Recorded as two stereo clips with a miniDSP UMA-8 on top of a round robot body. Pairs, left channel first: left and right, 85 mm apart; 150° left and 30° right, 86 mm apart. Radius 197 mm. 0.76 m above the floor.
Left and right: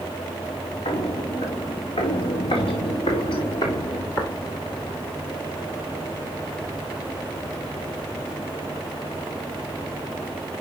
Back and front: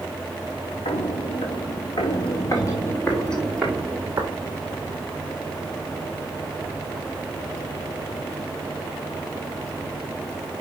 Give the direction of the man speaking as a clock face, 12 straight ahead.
No man speaking in this recording.